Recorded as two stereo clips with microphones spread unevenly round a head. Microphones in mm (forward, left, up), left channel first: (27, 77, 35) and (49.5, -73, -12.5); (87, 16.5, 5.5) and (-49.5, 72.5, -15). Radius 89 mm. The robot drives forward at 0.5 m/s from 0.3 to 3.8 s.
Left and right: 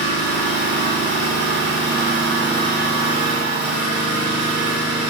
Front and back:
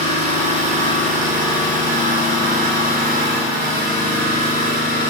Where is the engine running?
115° left, 5 m; by 5.1 s 130° left, 6 m.